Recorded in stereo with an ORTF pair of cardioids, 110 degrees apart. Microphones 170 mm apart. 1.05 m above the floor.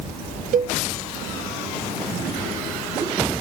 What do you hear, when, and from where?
0.5 s a cowbell: 55° right